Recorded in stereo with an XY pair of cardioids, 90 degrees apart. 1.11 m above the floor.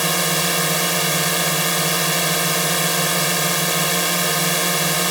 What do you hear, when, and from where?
0.0 s a drone: 5° right